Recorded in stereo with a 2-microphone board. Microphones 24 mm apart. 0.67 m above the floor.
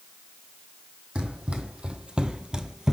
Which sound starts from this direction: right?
Running footsteps, at 1.1 s.